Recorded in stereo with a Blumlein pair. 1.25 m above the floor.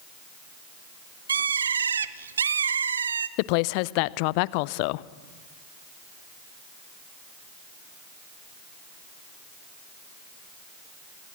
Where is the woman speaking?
45° left, 0.6 m.